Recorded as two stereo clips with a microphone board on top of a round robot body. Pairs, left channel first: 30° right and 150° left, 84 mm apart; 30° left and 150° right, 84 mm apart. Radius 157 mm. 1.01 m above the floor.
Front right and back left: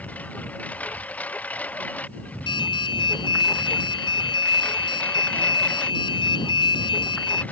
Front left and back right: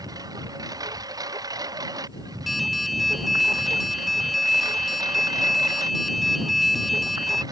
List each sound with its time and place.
0.0 s a lawn mower: 105° right
2.5 s an alarm: 60° right